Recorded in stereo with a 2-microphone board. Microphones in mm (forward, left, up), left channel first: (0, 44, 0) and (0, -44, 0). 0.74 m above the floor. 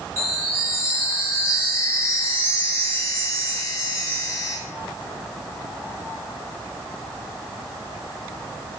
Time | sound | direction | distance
0.2 | a chime | 35° left (ahead or behind) | 5 m